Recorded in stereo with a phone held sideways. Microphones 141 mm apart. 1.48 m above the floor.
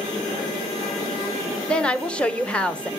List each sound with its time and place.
1.7 s a woman speaking: 5° left (ahead or behind), 1.1 m